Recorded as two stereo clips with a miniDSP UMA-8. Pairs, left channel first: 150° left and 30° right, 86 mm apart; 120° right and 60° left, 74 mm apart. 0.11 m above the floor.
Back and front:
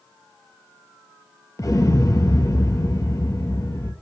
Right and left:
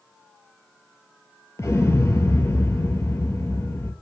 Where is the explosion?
165° right, 0.6 m.